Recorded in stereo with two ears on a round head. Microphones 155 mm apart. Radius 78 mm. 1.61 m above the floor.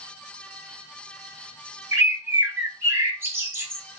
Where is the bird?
10° right (ahead or behind), 0.7 m.